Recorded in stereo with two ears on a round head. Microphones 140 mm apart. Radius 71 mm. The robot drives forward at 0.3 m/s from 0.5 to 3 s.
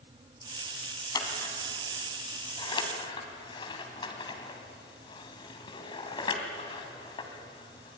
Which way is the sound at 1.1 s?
25° left (ahead or behind).